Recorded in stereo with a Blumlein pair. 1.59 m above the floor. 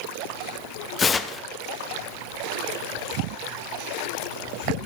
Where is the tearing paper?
15° left, 0.9 m.